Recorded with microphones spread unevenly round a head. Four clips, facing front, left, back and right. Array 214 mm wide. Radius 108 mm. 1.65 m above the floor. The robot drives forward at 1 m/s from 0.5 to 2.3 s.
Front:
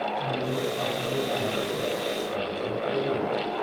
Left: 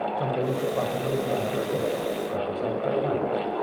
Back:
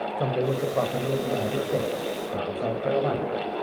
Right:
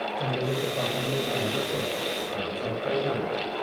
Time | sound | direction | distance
0.2 | a man speaking | 170° left | 8 m